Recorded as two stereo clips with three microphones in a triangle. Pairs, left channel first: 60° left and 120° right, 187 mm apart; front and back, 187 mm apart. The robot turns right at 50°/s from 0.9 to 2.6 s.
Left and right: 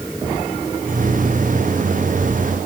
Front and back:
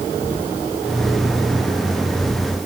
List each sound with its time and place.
Only background noise.